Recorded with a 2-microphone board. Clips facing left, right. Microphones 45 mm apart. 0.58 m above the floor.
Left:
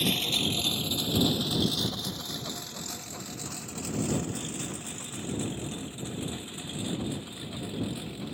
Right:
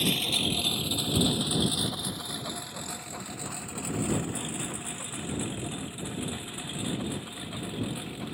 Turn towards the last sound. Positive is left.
turn(degrees=-20)  # may be behind; listen again after turning